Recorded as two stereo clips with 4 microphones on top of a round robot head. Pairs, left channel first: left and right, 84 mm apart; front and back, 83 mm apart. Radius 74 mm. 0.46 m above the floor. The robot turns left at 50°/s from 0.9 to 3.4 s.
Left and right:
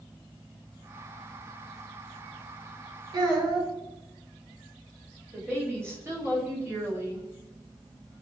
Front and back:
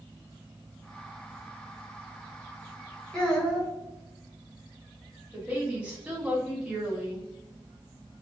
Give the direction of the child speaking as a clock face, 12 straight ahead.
2 o'clock.